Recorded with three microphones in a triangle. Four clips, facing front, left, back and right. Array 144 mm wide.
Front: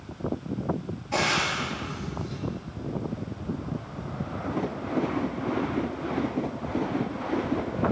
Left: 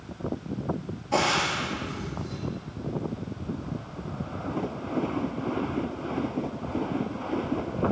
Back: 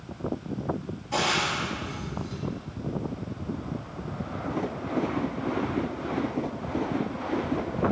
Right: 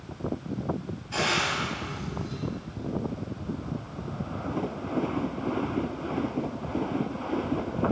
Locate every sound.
1.1 s frying: 90° left, 2.5 m